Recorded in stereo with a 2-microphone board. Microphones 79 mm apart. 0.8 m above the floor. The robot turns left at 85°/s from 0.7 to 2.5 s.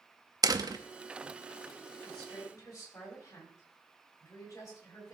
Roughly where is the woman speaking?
Behind.